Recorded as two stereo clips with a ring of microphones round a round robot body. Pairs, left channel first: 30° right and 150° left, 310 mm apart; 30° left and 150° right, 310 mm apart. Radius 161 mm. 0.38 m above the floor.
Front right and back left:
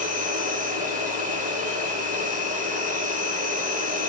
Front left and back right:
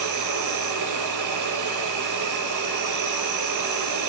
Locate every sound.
0.0 s an insect: 150° right, 2.5 m